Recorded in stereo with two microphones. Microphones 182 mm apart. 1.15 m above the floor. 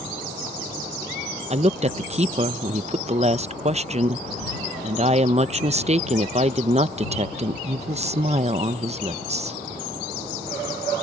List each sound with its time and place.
1.5 s a woman speaking: 35° right (ahead or behind)